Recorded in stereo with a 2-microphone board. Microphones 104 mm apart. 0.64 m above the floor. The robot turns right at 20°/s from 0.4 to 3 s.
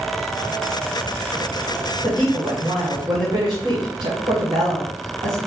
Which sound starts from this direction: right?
A woman speaking, at 2.0 s.